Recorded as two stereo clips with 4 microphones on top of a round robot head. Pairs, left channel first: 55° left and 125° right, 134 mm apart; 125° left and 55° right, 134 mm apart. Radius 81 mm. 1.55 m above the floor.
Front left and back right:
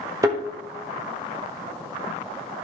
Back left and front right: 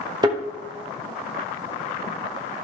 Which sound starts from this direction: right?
A thud, at 0.2 s.